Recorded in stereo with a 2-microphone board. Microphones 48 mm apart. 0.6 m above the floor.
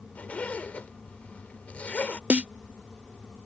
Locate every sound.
0.1 s a zipper: 30° left (ahead or behind)
2.3 s a snare drum: 30° right (ahead or behind)